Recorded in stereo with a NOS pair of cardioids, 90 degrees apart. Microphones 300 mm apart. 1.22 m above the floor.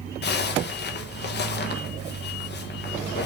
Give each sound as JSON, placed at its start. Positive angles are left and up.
{"t": 0.2, "sound": "a zipper", "azimuth_deg": 35, "distance_m": 1.4}